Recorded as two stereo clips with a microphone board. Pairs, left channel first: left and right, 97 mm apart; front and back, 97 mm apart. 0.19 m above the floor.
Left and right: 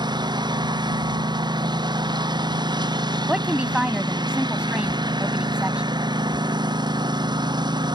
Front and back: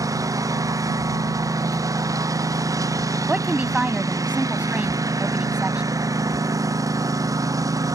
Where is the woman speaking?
140° right.